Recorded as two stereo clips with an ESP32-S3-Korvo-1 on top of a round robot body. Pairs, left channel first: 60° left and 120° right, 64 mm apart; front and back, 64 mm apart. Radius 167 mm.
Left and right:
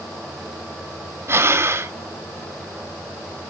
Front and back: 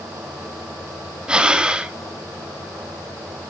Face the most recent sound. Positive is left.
turn(degrees=-110)